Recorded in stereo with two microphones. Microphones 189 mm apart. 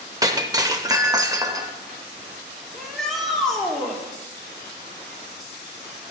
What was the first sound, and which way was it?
Breaking glass, 20° right (ahead or behind).